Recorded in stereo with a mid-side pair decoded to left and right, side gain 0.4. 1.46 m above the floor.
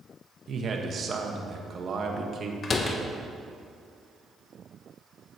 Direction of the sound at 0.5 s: 50° right.